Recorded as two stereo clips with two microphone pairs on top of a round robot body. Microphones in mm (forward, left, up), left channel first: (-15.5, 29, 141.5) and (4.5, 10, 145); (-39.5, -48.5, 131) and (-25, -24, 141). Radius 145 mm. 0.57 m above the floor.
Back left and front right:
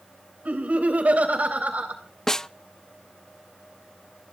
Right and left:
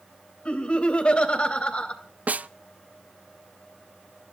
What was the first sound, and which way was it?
Laughter, 75° right.